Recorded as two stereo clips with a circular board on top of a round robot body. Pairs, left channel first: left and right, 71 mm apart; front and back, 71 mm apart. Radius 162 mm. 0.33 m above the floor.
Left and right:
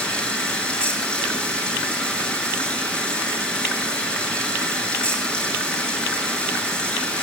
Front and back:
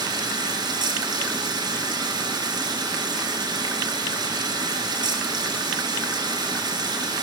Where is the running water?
165° left, 6 m.